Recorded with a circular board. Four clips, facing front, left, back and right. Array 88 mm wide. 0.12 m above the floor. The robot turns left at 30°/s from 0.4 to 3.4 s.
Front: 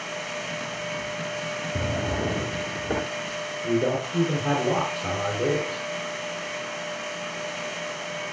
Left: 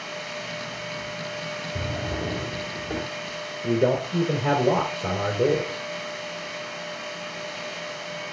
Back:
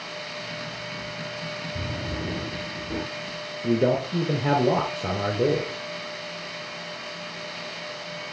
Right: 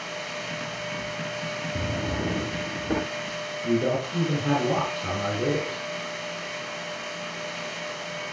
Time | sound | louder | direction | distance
1.8 | a drawer | right 1 dB, front 7 dB | 10° right | 2.0 m
3.6 | a man speaking | left 3 dB, back 2 dB | 145° left | 2 m